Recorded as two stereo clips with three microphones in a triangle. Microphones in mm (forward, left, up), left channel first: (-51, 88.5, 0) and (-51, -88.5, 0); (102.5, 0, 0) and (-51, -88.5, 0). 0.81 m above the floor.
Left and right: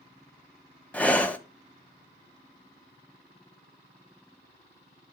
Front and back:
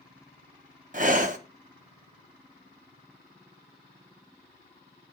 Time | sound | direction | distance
0.9 | breathing | 175° left | 0.5 m